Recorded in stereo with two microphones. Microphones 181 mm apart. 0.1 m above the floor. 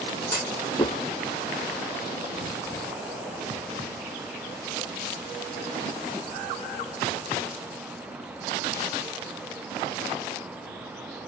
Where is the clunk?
20° left (ahead or behind), 0.7 m.